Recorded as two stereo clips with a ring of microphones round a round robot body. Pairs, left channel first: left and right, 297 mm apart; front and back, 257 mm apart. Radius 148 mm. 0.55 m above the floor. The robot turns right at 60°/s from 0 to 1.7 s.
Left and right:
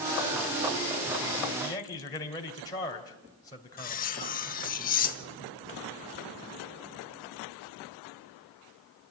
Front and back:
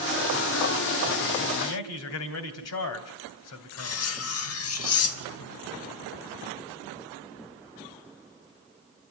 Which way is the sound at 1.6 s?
5° left.